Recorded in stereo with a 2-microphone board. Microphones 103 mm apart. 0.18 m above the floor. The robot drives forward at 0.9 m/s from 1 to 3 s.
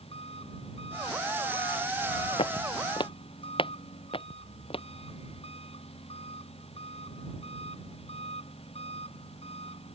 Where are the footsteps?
75° left (ahead or behind); by 4.8 s 70° left (ahead or behind).